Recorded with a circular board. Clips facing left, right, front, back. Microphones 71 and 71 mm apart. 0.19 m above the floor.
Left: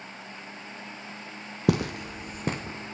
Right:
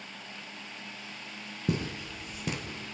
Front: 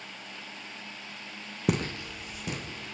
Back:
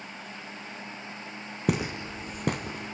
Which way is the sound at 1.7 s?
90° left.